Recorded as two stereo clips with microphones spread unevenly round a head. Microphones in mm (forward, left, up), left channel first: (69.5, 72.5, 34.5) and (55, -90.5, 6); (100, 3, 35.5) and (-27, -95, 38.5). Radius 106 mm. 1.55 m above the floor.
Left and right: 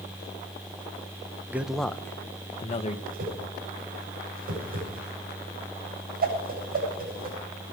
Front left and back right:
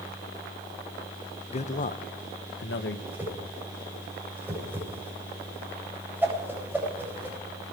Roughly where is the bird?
No bird in this recording.